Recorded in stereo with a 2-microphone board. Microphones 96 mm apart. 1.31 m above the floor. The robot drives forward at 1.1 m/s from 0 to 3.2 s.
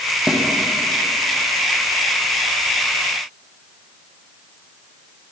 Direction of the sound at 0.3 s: 5° right (ahead or behind).